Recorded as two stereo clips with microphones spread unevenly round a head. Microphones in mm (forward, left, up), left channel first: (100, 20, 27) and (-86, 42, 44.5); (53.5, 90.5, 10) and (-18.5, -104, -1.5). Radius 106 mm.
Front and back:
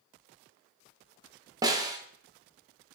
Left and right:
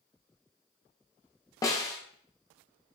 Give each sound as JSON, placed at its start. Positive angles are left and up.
{"t": 1.6, "sound": "a snare drum", "azimuth_deg": 125, "distance_m": 0.6}